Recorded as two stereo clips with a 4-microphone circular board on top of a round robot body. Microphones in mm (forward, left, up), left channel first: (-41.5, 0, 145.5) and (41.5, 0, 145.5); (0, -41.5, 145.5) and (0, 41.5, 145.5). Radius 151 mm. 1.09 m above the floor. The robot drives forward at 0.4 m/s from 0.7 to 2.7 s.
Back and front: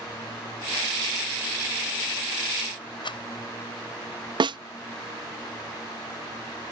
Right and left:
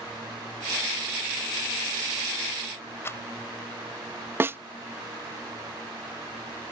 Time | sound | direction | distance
3.0 | a rattle | 150° right | ?
4.4 | a snare drum | 25° left | ?